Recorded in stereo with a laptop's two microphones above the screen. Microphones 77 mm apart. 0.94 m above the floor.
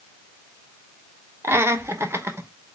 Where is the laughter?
30° right (ahead or behind), 0.9 m.